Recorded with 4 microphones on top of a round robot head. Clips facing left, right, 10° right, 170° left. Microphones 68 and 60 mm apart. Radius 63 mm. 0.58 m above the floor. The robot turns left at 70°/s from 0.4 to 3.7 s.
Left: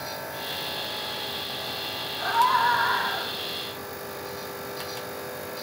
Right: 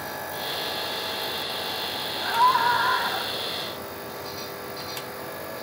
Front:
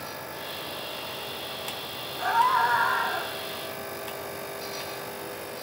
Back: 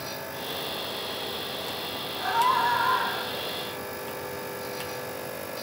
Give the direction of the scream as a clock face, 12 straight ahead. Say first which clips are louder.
Right 1 dB, front 1 dB; 10 o'clock.